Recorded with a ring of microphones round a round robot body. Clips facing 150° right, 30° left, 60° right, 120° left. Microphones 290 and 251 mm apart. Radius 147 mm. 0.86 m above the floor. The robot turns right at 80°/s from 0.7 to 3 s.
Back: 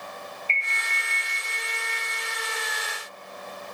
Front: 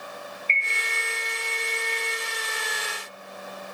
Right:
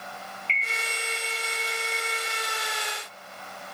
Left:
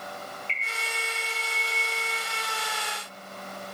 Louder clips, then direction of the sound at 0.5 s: Front 4 dB, right 1 dB; 70° left.